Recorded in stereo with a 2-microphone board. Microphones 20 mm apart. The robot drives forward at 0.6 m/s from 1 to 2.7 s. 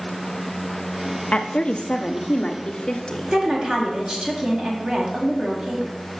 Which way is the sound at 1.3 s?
60° left (ahead or behind).